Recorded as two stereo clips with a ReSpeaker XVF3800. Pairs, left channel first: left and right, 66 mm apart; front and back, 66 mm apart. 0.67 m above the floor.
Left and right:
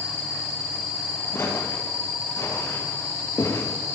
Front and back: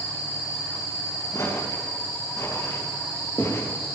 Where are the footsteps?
35° left, 10 m; by 3.7 s 45° left, 10.5 m.